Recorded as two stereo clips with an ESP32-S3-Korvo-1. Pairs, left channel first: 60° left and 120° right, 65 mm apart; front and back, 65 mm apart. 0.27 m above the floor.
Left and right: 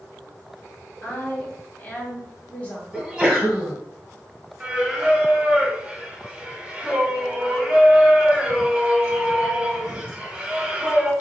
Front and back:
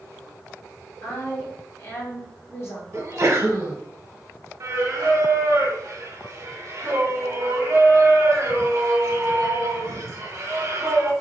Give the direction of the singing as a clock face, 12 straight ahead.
6 o'clock.